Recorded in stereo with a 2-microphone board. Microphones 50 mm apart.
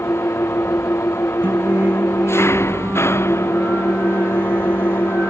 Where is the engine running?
60° left (ahead or behind).